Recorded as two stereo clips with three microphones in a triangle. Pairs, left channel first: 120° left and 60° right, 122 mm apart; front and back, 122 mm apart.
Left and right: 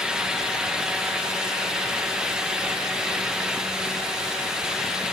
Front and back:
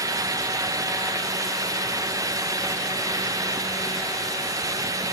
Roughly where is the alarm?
I don't hear an alarm.